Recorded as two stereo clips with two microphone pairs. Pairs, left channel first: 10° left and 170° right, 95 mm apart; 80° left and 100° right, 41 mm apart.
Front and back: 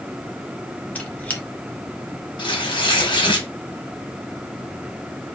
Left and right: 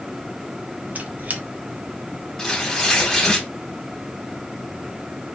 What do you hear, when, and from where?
0.9 s a squeak: 60° right, 0.6 m
2.4 s tearing paper: straight ahead, 1.0 m